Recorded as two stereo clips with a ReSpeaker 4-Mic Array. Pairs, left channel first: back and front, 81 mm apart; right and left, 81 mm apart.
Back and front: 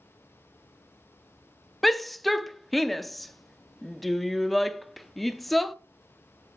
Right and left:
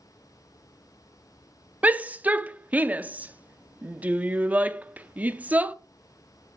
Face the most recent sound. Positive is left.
turn(degrees=95)